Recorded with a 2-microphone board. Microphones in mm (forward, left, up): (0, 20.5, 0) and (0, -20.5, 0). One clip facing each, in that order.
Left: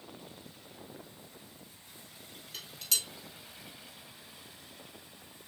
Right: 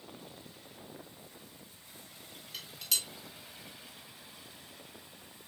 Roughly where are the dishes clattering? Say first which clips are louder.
Even; centre.